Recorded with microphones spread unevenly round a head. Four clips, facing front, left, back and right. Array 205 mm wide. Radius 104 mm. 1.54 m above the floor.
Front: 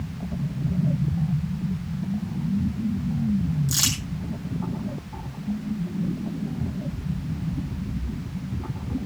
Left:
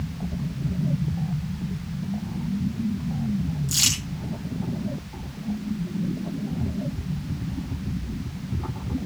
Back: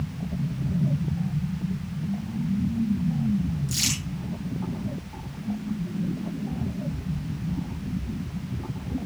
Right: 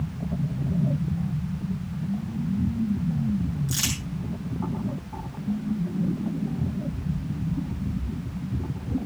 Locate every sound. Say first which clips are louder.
3.7 s crumpling: right 1 dB, front 2 dB; 10° right, 6 m